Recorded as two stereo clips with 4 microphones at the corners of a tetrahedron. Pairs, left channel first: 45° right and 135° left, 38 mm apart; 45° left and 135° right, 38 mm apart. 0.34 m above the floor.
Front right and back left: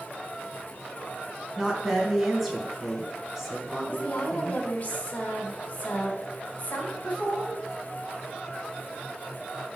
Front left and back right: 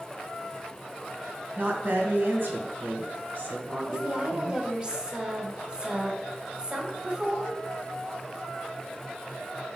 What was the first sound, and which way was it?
A woman speaking, 135° right.